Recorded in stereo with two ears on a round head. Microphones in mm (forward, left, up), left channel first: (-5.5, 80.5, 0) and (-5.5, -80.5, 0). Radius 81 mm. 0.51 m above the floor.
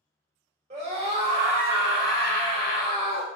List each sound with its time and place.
0.7 s a scream: 35° right (ahead or behind), 1.7 m; by 3.2 s 40° left (ahead or behind), 1.5 m